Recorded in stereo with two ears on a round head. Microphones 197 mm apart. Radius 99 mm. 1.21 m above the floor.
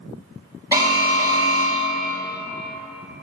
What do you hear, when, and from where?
0.7 s an alarm: 20° right (ahead or behind), 1.9 m